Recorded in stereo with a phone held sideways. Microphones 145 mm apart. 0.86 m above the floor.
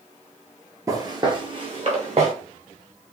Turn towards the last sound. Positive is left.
turn(degrees=-50)  # may be behind; listen again after turning